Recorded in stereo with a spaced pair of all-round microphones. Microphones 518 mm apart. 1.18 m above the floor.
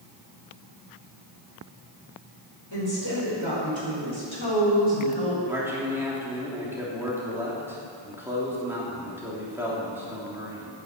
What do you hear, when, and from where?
2.7 s a woman speaking: 55° left (ahead or behind), 5.5 m; by 5.4 s 75° left (ahead or behind), 4 m
5.5 s a man speaking: 5° right (ahead or behind), 3.5 m